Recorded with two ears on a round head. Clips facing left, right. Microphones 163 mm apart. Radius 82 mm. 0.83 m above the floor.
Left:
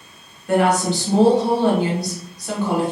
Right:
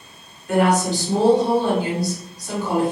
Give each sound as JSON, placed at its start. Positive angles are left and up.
{"t": 0.5, "sound": "a woman speaking", "side_deg": 55, "distance_m": 1.2}